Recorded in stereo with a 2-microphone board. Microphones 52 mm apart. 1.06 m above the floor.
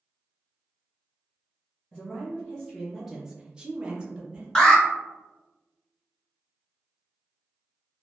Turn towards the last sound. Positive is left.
turn(degrees=15)  # may be behind; listen again after turning